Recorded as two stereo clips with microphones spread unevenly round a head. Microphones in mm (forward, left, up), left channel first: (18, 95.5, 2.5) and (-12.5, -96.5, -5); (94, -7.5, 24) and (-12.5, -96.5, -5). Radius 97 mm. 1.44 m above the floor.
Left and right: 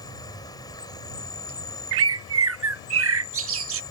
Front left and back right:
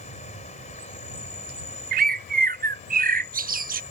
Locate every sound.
0.0 s an insect: 10° left
1.9 s a bird: 125° right